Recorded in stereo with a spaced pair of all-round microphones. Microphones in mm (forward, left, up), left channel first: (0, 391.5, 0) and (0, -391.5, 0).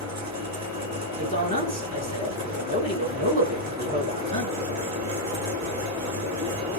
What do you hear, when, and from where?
0.0 s a fan: 20° right (ahead or behind), 1.2 m
1.2 s a man speaking: 20° left (ahead or behind), 1.6 m